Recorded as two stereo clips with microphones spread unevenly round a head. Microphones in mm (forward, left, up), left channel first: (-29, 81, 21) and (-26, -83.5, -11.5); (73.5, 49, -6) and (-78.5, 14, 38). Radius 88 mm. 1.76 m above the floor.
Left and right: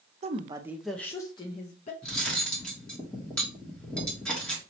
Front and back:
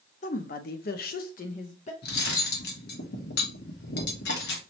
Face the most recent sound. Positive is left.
turn(degrees=20)